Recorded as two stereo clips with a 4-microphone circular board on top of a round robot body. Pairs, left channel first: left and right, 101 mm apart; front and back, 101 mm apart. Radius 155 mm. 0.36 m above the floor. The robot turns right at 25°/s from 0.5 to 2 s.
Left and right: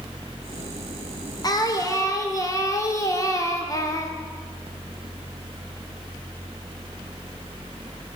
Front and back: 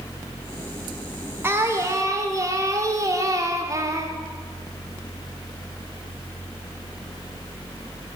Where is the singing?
120° left, 2 m; by 4.1 s 135° left, 2 m.